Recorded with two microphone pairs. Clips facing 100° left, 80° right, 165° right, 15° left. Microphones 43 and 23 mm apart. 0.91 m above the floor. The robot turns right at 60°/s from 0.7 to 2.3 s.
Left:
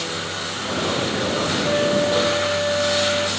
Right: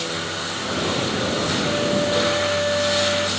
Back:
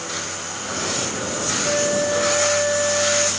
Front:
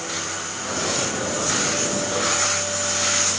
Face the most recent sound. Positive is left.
turn(degrees=-165)